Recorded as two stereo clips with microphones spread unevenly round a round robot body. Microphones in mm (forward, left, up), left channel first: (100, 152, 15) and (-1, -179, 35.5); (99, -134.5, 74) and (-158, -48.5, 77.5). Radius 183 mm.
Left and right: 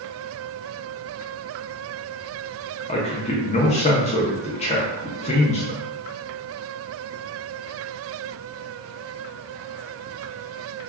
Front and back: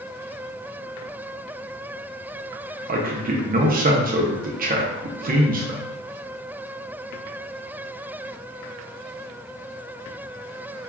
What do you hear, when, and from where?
2.9 s a man speaking: 125° left, 0.6 m